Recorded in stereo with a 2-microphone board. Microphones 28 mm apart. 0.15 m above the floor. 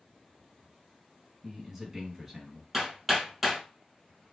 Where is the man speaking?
10° right (ahead or behind), 1.5 m.